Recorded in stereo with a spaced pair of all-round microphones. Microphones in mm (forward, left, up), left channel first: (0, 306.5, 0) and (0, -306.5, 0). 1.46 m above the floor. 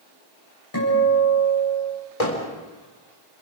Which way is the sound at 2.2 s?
65° left (ahead or behind).